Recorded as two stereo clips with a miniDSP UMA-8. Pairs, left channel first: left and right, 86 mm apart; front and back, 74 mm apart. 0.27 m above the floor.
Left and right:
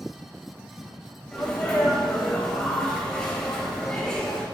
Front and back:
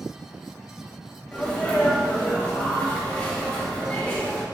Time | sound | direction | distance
1.3 | a sneeze | 30° left | 1.1 m